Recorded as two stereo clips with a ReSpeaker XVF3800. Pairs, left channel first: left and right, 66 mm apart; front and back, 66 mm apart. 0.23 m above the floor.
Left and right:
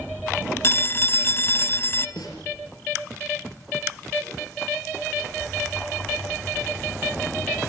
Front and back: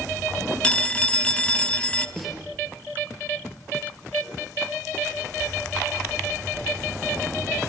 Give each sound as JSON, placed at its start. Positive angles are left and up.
{"t": 0.6, "sound": "a phone ringing", "azimuth_deg": 65, "distance_m": 1.0}
{"t": 2.2, "sound": "a snare drum", "azimuth_deg": 95, "distance_m": 4.5}